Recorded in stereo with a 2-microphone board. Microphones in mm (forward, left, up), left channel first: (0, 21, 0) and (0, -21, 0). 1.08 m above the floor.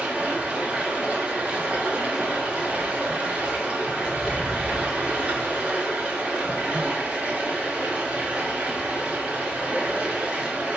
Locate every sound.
0.0 s running water: 35° right (ahead or behind), 2.5 m